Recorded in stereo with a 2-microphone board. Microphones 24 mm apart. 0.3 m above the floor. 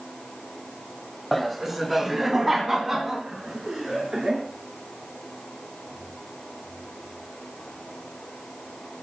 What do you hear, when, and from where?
1.3 s laughter: 5° left (ahead or behind), 1.1 m; by 4.5 s 20° right (ahead or behind), 4 m